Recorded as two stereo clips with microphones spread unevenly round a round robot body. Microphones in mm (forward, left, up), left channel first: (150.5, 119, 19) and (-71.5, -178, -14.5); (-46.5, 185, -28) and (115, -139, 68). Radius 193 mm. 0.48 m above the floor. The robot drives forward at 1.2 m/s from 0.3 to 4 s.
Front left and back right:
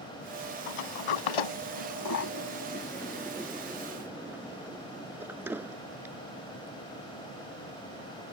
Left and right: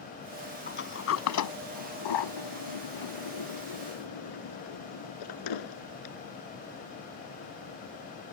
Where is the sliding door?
50° left; by 6.2 s 150° left.